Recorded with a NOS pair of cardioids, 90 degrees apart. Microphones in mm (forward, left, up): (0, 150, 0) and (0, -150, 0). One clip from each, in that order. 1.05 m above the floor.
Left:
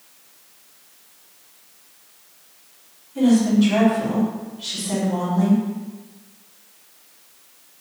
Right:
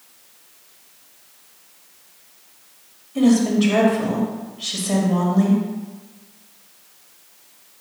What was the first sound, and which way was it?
A woman speaking, 35° right.